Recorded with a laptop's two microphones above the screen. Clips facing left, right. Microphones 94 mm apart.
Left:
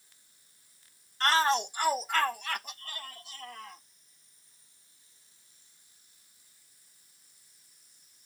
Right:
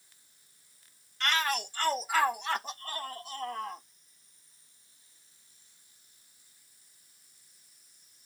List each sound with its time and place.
1.2 s a shout: 40° left (ahead or behind); by 3.9 s 55° right (ahead or behind)